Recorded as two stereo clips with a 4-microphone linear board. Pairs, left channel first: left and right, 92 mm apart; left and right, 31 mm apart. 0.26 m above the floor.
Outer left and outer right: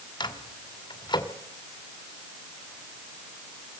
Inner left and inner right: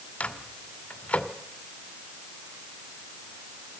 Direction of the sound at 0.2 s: 55° left (ahead or behind).